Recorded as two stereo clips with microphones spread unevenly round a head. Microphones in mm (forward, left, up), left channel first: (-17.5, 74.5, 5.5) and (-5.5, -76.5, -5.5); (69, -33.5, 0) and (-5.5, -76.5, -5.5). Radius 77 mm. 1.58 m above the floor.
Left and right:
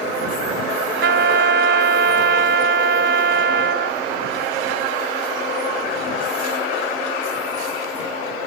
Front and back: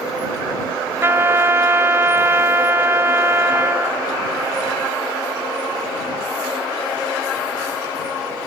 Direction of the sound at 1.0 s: 90° right.